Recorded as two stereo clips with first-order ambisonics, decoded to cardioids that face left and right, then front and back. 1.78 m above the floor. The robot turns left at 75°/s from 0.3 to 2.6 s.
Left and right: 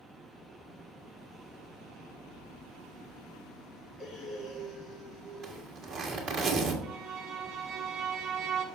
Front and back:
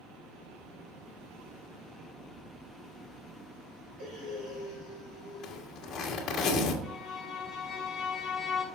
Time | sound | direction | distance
4.0 | breathing | 150° left | 1.8 m
5.4 | a zipper | 45° right | 1.4 m
6.8 | a violin | 80° right | 1.4 m